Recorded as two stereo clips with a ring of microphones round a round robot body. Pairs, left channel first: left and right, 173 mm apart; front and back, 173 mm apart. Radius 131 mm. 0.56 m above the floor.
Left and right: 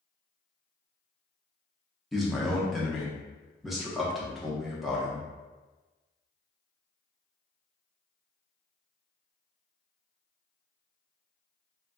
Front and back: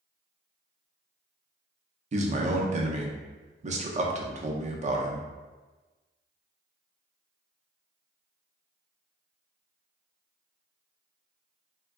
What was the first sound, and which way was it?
A man speaking, straight behind.